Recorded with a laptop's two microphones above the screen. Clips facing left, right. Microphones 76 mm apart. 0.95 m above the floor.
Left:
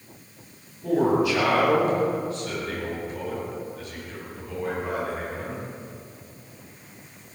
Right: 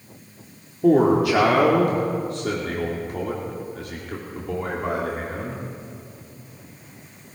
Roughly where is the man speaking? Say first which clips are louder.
Right 5 dB; right.